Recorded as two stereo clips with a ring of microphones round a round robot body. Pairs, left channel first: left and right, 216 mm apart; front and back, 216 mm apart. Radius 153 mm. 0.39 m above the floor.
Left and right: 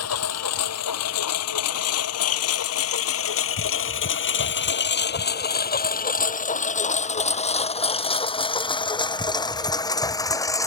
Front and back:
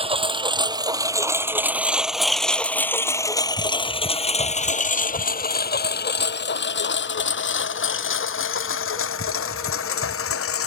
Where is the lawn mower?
115° left; by 10.7 s 15° left.